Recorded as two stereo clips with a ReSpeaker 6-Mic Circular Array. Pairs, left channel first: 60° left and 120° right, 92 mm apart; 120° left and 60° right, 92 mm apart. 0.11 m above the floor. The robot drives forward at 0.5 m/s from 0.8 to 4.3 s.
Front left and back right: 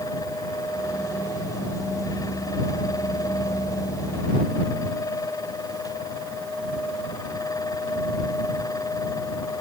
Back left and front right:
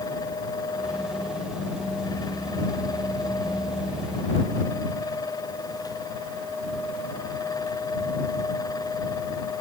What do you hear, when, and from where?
Only background noise.